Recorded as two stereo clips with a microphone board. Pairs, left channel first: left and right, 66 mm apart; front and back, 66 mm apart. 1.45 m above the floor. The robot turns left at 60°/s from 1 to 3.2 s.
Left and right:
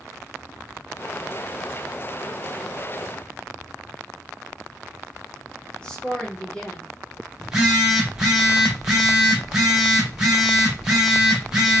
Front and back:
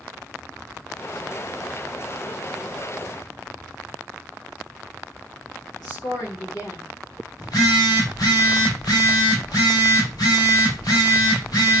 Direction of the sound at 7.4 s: 10° right.